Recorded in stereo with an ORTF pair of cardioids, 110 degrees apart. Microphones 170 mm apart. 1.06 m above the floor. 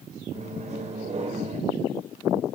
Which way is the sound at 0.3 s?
40° right.